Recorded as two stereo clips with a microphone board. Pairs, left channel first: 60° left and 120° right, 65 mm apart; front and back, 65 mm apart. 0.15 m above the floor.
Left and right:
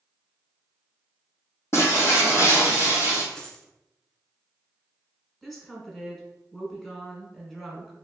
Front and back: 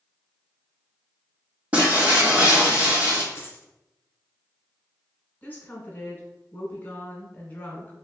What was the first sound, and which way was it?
Breaking glass, 110° left.